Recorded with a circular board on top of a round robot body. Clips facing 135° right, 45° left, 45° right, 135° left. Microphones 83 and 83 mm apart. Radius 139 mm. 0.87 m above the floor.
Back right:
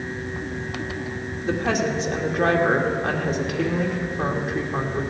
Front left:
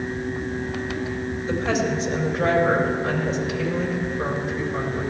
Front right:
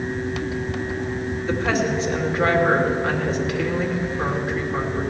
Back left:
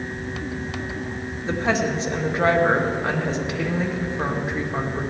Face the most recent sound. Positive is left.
turn(degrees=-160)